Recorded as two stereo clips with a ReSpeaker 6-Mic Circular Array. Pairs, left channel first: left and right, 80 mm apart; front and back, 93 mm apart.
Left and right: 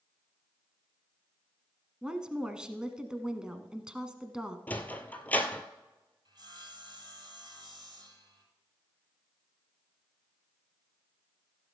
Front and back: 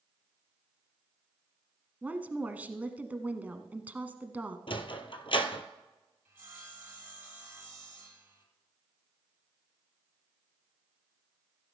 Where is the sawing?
115° right, 4.5 m.